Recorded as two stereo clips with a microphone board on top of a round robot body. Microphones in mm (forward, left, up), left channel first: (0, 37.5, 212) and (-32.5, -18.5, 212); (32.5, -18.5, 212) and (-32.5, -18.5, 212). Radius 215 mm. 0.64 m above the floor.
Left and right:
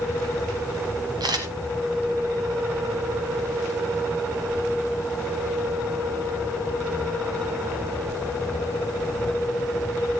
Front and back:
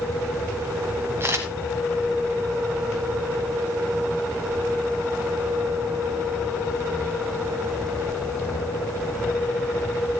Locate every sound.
1.2 s a camera shutter: 130° right, 0.8 m